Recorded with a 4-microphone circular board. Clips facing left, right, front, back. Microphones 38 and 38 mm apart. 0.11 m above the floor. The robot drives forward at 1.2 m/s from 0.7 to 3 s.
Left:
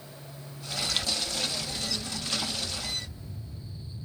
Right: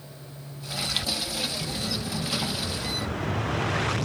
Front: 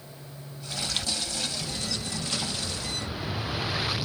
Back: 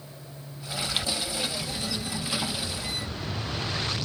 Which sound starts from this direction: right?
An explosion, at 1.6 s.